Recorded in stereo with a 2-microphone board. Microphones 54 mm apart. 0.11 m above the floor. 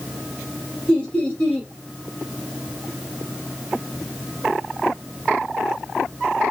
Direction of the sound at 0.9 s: 20° left (ahead or behind).